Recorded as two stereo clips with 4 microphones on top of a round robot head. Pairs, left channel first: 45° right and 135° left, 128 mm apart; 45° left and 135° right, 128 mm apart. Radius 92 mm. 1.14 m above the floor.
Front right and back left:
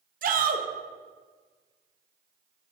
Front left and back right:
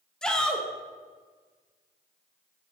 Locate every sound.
0.2 s a shout: 130° left, 1.1 m